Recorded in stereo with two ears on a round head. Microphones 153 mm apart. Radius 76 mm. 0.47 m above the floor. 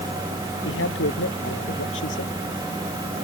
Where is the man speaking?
80° left.